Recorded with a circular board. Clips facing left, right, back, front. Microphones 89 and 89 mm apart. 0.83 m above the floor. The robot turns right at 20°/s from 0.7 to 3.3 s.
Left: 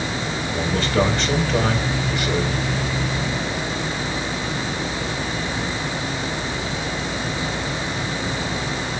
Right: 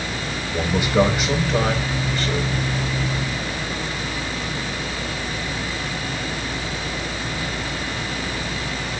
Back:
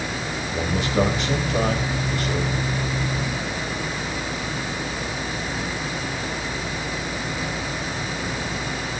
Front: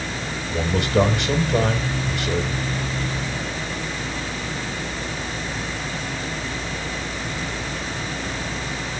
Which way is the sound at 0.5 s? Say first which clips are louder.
Right 2 dB, front 3 dB; 15° right.